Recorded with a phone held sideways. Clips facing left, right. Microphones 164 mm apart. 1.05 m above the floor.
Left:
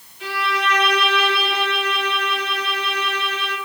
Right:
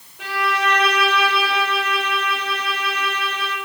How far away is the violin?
About 4.5 m.